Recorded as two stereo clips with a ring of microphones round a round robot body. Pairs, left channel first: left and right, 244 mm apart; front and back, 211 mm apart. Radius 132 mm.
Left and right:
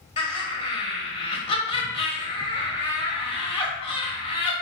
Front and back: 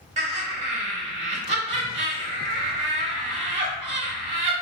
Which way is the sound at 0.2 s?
140° left.